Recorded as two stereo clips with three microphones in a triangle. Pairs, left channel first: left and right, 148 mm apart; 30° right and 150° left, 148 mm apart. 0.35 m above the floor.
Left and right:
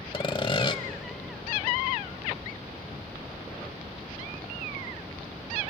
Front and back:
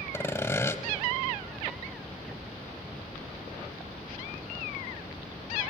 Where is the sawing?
40° left, 1.0 m.